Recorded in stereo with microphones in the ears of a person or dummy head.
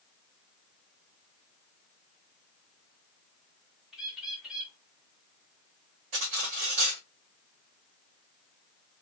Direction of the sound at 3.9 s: 5° right (ahead or behind).